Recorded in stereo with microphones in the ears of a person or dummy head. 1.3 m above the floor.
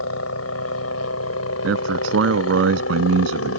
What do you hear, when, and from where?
0.0 s a helicopter: 75° left (ahead or behind)
1.6 s a man speaking: 85° right